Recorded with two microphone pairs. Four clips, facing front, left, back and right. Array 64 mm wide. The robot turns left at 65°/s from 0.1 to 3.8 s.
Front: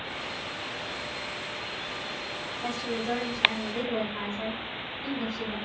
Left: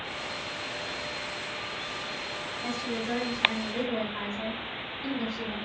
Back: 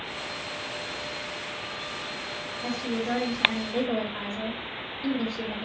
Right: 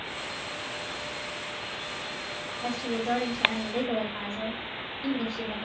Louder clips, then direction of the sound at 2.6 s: Right 4 dB, back 2 dB; 65° right.